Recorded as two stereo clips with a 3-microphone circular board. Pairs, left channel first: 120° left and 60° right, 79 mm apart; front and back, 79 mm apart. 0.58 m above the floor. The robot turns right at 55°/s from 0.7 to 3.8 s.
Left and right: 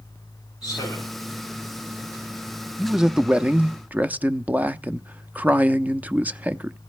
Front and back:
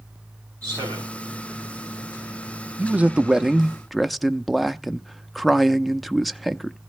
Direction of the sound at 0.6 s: 135° left.